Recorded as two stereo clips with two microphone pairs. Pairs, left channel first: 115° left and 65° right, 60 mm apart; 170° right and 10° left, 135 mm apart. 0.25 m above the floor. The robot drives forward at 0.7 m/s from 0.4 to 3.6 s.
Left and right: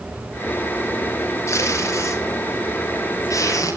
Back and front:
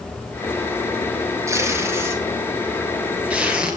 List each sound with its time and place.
1.5 s tape being pulled: 80° left, 5.5 m; by 3.8 s 95° left, 5.5 m